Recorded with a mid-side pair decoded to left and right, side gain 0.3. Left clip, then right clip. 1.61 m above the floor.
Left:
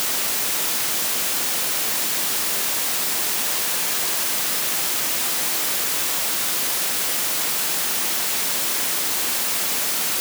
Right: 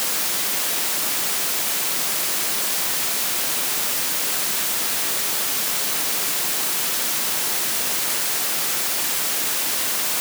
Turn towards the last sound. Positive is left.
No sound to turn to.